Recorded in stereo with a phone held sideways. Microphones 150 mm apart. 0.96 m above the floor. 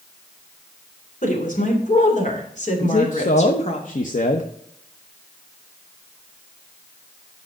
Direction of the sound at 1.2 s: 60° left (ahead or behind).